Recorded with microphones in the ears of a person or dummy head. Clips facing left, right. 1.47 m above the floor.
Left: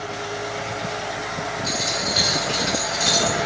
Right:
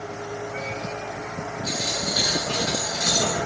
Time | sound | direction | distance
1.6 | a dropped coin | 20° left (ahead or behind) | 1.0 m